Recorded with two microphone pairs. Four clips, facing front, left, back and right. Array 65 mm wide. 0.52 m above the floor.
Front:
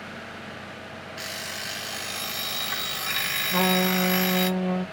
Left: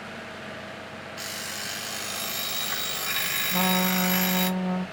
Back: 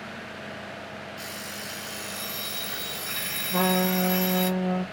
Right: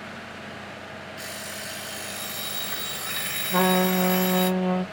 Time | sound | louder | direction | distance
1.2 | an alarm clock | left 1 dB, front 2 dB | 20° left | 0.5 m
3.5 | a trumpet | right 5 dB, even | 75° right | 0.6 m